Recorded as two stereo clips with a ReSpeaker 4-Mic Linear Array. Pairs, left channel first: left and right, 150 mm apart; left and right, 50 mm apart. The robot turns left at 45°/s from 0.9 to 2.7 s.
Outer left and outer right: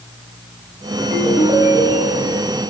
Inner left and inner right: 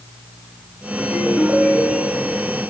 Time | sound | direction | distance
1.0 | a ringtone | 5° left | 4.5 m